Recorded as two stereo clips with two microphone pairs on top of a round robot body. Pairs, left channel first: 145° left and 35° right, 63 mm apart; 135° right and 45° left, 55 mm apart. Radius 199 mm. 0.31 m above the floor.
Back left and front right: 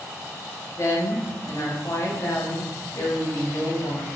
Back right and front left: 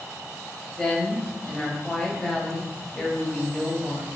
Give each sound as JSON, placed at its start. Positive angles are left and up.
{"t": 0.8, "sound": "a woman speaking", "azimuth_deg": 140, "distance_m": 1.1}